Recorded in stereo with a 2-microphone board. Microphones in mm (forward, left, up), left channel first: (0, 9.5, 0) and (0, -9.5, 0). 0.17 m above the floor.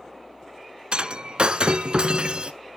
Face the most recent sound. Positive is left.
turn(degrees=-50)  # may be behind; listen again after turning